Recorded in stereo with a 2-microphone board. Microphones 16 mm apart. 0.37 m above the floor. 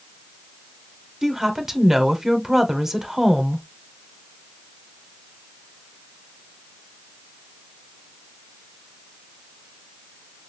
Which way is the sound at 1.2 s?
20° right (ahead or behind).